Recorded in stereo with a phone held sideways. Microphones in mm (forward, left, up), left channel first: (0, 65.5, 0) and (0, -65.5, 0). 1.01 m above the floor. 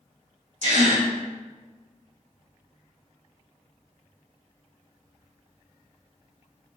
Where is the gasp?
65° right (ahead or behind), 1.7 m.